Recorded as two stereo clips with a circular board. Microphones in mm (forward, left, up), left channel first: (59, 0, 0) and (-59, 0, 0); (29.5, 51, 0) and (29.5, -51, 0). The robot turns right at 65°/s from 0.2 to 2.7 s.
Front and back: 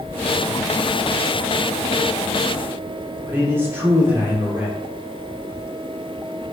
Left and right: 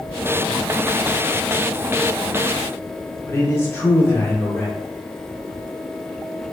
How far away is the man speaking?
About 0.9 m.